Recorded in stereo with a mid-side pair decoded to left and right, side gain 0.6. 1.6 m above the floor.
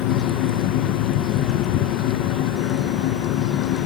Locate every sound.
0.0 s a fan: 65° left, 1.5 m